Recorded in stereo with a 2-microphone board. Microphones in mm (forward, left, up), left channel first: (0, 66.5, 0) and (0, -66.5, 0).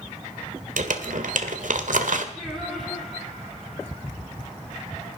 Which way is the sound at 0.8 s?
75° right (ahead or behind).